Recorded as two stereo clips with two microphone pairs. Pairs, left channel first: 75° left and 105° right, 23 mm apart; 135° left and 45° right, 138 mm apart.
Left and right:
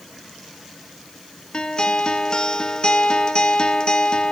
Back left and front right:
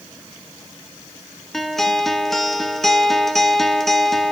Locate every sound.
1.5 s a guitar: 50° left, 1.0 m